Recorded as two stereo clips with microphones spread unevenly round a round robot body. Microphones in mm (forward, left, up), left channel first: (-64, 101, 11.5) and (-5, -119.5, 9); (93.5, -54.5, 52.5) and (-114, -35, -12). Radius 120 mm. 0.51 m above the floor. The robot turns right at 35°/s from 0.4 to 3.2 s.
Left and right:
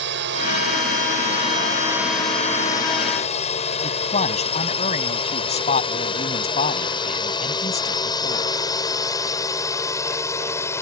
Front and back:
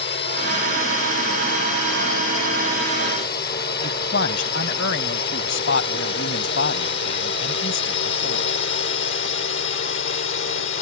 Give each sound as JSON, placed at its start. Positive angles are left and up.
{"t": 0.0, "sound": "a drone", "azimuth_deg": -45}
{"t": 3.8, "sound": "a man speaking", "azimuth_deg": 40}